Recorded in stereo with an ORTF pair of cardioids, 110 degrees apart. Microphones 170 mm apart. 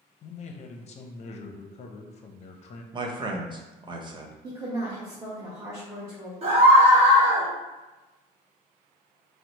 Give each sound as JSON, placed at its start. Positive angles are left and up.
{"t": 0.2, "sound": "a man speaking", "azimuth_deg": 40, "distance_m": 0.6}
{"t": 2.9, "sound": "a man speaking", "azimuth_deg": -30, "distance_m": 0.7}
{"t": 4.4, "sound": "a woman speaking", "azimuth_deg": -15, "distance_m": 1.1}
{"t": 6.4, "sound": "a scream", "azimuth_deg": -40, "distance_m": 1.3}